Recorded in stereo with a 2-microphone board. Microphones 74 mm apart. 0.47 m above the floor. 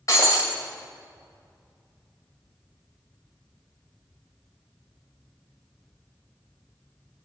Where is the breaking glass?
45° left (ahead or behind), 2.0 m.